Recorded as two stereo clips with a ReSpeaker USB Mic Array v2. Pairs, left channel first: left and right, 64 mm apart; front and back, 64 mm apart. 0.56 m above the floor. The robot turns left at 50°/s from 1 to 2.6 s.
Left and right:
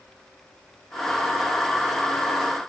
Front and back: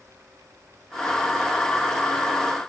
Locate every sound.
Only background noise.